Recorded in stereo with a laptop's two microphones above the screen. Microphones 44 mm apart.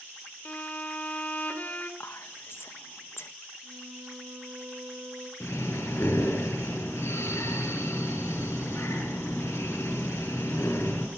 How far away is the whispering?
About 1.4 m.